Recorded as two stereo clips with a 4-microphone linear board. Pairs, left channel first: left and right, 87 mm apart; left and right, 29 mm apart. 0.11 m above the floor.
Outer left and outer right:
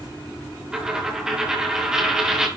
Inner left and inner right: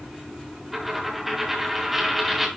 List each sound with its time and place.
0.7 s a dropped coin: 5° right (ahead or behind), 4.5 m